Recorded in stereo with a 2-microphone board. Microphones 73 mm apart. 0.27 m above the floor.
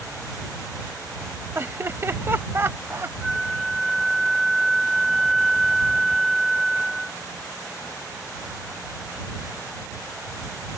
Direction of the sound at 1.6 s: 35° right (ahead or behind).